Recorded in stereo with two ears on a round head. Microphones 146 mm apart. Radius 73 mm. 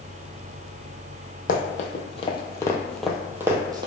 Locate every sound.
1.5 s running footsteps: 50° left (ahead or behind), 0.9 m; by 3.9 s 25° right (ahead or behind), 0.8 m